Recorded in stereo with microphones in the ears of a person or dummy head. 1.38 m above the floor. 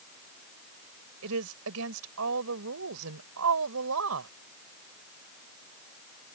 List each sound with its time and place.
1.2 s a woman speaking: 80° right; by 4.3 s 85° right